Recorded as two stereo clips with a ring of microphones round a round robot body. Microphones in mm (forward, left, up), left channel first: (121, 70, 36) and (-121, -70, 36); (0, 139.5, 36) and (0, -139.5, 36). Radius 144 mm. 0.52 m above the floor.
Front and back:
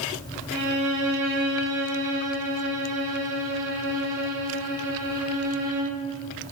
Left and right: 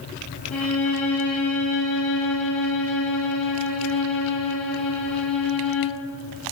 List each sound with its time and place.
0.5 s a violin: 175° left, 0.6 m